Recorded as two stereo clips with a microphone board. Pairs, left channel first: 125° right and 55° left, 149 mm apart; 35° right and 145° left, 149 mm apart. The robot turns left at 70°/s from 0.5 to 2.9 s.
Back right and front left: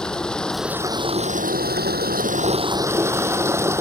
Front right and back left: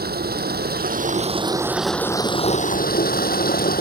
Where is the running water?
150° left; by 3.8 s 15° right.